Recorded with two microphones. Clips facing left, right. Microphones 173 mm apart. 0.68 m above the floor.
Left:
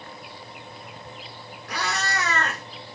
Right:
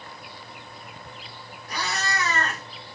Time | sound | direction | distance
1.7 | a cat meowing | 70° left (ahead or behind) | 1.0 m